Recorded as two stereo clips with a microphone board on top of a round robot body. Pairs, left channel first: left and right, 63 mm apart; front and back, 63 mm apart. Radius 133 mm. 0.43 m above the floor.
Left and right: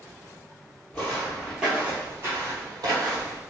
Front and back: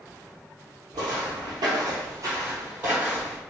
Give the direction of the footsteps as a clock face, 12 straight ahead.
7 o'clock.